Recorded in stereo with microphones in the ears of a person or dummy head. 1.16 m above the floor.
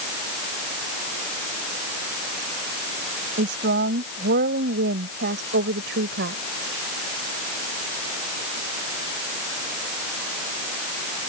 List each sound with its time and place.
3.4 s a woman speaking: 45° right (ahead or behind); by 6.4 s 50° right (ahead or behind)